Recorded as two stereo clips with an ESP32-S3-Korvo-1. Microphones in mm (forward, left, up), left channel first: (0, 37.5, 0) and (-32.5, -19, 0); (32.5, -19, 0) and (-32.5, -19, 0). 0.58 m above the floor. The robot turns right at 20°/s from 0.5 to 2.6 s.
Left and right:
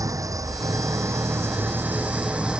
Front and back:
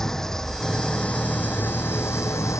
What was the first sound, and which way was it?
An engine running, 85° right.